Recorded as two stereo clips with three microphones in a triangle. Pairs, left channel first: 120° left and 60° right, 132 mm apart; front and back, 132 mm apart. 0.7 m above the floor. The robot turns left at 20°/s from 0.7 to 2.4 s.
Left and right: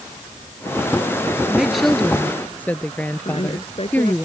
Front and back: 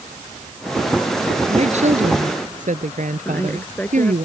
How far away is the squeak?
No squeak in this recording.